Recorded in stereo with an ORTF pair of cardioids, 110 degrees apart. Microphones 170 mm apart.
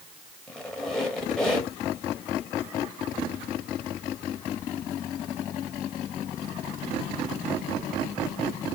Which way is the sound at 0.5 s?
5° left.